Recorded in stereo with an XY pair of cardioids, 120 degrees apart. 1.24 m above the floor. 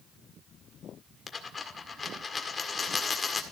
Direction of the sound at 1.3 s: 30° left.